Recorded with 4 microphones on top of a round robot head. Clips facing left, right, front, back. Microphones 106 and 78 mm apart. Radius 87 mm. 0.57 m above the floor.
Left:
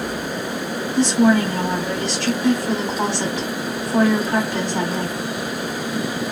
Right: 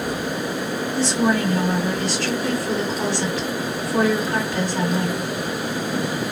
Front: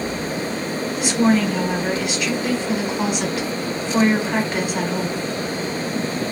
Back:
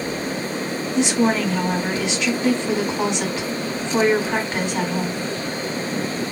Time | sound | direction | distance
0.9 | a woman speaking | 110° left | 2.0 m